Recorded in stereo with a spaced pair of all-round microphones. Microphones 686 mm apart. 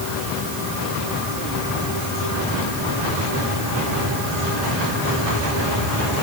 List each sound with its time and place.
Only background noise.